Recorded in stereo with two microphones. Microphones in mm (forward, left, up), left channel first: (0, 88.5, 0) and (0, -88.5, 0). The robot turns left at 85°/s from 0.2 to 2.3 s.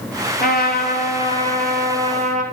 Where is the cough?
No cough in this recording.